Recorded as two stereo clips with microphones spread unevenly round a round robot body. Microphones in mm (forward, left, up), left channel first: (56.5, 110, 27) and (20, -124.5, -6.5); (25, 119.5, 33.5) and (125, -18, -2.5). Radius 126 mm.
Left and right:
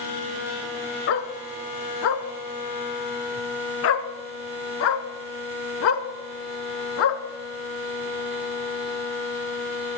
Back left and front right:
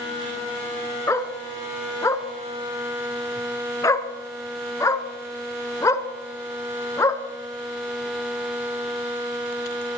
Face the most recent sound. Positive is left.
turn(degrees=55)